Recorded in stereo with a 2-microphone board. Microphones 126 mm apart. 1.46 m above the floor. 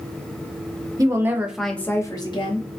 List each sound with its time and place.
1.0 s a woman speaking: 30° right (ahead or behind), 0.7 m; by 2.7 s 50° left (ahead or behind), 0.7 m